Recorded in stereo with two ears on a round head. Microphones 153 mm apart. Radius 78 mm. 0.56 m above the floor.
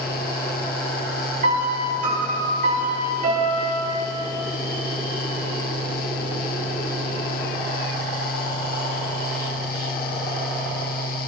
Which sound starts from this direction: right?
A piano, at 1.4 s.